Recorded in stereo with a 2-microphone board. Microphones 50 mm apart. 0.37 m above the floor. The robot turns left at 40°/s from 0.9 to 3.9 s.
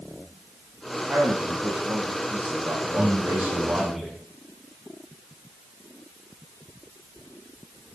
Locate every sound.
1.1 s a man speaking: 25° right, 3.5 m; by 4.0 s 140° right, 3.5 m
3.0 s a man speaking: 140° right, 3 m; by 4.2 s 175° right, 3 m